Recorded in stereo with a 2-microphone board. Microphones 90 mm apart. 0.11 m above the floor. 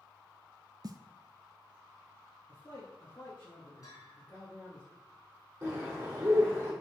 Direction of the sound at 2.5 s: 35° left (ahead or behind).